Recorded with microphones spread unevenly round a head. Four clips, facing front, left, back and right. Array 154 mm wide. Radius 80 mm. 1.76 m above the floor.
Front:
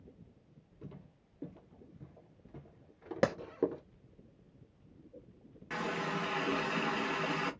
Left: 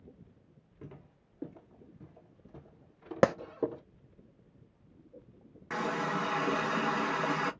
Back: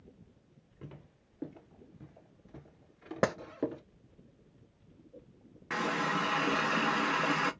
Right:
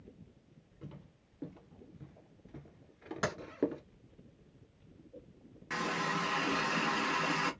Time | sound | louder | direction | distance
0.8 | footsteps | left 1 dB, back 1 dB | 135° left | 2 m
3.2 | a clap | left 11 dB, back 1 dB | 95° left | 0.7 m
5.7 | a running tap | left 2 dB, back 4 dB | 120° left | 0.8 m